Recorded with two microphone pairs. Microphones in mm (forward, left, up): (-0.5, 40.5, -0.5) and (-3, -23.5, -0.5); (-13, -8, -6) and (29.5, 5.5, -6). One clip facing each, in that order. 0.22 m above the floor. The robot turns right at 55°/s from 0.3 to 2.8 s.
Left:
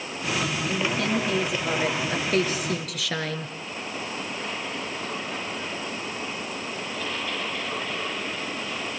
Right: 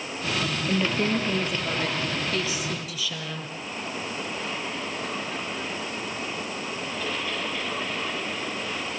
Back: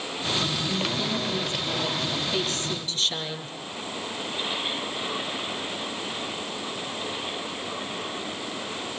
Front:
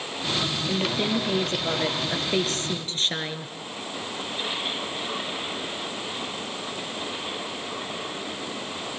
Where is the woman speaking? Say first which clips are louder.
Right 3 dB, front 2 dB; 50° right, 4 m; by 3.5 s 70° left, 4 m.